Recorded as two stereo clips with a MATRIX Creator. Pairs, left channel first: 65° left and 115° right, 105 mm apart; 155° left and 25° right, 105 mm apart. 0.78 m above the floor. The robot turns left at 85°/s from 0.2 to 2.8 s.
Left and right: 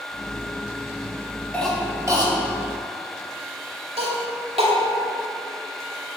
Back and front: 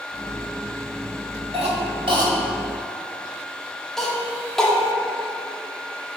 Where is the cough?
10° right, 2 m; by 4.7 s 115° right, 2 m.